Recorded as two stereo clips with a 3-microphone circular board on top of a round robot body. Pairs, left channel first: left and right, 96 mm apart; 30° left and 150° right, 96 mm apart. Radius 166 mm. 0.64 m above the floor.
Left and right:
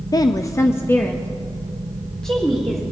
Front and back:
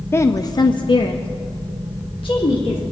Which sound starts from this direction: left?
A woman speaking, at 0.1 s.